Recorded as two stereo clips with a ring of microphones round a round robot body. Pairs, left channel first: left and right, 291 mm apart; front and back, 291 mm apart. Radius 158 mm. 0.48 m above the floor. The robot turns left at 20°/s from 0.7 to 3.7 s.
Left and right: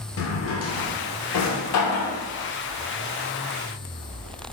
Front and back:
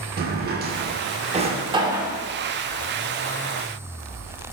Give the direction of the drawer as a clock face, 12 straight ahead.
8 o'clock.